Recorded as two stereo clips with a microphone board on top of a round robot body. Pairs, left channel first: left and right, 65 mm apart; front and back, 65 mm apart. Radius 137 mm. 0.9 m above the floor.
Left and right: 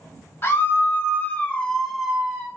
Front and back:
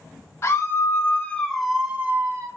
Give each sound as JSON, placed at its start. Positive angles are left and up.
{"t": 0.4, "sound": "a scream", "azimuth_deg": 45, "distance_m": 1.2}